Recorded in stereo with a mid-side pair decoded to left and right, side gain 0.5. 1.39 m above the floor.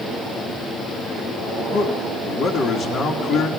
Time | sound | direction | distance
1.7 | a man speaking | 55° left | 3 m